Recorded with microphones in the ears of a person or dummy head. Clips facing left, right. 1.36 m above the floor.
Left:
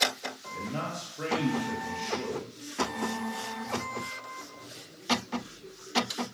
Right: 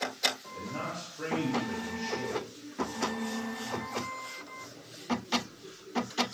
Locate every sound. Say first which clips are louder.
0.5 s a man speaking: left 3 dB; 50° left (ahead or behind), 1.0 m